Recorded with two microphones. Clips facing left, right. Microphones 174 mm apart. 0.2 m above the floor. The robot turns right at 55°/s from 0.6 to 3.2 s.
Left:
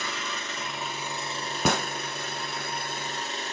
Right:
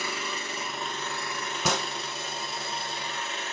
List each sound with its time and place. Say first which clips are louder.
0.0 s an engine running: right 1 dB; 10° right, 1.6 m; by 3.5 s 135° left, 1.6 m
1.6 s a gunshot: left 3 dB; 55° left (ahead or behind), 0.8 m; by 1.9 s 60° left (ahead or behind), 0.8 m